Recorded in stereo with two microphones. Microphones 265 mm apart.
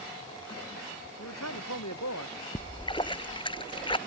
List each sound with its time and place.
1.2 s a man speaking: 80° left
2.5 s a splash: 20° left (ahead or behind)